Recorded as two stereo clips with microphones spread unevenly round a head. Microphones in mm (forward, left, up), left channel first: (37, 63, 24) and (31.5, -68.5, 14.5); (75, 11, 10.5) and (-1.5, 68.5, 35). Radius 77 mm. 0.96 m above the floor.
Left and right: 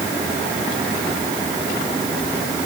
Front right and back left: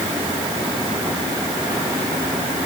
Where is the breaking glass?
I don't hear breaking glass.